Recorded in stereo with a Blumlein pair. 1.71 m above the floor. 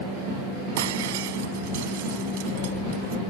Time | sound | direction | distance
0.8 | breaking glass | 55° right | ?